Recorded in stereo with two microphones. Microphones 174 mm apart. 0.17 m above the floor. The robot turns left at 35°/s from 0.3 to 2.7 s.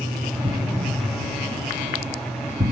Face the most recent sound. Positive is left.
turn(degrees=-50)  # may be behind; listen again after turning